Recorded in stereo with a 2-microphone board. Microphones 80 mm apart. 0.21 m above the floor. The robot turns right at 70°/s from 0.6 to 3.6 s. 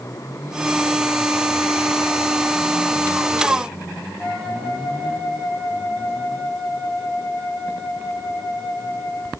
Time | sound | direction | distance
4.2 | a flute | 15° left (ahead or behind) | 8 m